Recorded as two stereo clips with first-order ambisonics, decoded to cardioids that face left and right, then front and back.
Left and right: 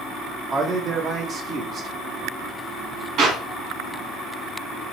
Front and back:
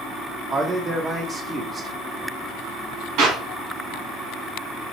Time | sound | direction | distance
0.5 | a man speaking | 120° right | 0.7 m
3.2 | a clap | 145° right | 1.9 m